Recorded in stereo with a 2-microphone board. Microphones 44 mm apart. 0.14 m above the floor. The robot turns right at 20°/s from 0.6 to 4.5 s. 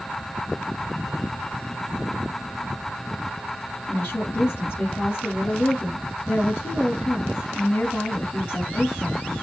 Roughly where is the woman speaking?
Left.